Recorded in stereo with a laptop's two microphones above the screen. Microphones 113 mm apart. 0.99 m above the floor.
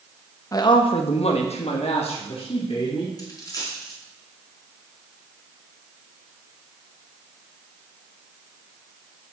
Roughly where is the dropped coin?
Left.